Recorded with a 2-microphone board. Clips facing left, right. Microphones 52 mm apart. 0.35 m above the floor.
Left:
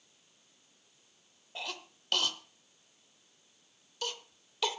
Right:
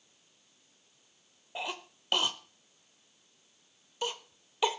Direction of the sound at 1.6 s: 20° right (ahead or behind).